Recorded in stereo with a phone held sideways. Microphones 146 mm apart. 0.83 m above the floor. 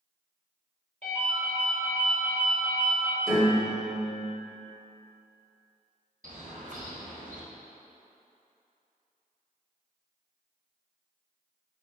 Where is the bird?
65° right (ahead or behind), 0.9 m.